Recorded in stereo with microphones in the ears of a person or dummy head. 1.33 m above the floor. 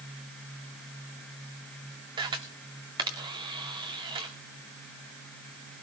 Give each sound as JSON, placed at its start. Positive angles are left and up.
{"t": 2.2, "sound": "a camera shutter", "side_deg": -20, "distance_m": 1.8}